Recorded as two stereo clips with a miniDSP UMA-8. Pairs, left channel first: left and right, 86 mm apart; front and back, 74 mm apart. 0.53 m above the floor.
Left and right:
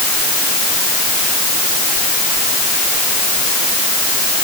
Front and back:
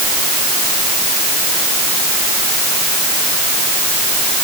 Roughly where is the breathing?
I don't hear breathing.